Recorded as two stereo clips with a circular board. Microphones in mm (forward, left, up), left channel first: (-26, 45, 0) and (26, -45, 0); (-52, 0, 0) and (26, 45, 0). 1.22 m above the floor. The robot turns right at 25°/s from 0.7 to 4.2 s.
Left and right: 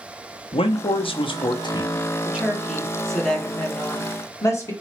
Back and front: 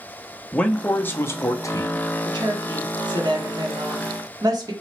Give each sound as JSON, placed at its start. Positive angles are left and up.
{"t": 0.5, "sound": "a man speaking", "azimuth_deg": 135, "distance_m": 0.5}
{"t": 2.2, "sound": "a woman speaking", "azimuth_deg": 15, "distance_m": 0.9}